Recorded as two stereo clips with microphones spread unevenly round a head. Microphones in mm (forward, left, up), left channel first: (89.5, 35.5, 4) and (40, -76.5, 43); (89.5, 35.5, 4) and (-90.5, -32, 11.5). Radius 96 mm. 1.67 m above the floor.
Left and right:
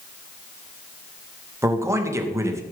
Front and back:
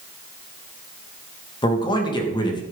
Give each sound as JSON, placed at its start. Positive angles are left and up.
{"t": 1.6, "sound": "a man speaking", "azimuth_deg": -50, "distance_m": 2.0}